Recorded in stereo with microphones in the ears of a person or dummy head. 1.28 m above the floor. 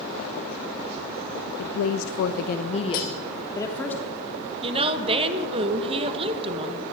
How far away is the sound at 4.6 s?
About 1.4 m.